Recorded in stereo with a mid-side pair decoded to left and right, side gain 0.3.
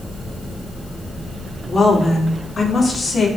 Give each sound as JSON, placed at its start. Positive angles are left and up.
{"t": 1.7, "sound": "a woman speaking", "azimuth_deg": 50, "distance_m": 6.5}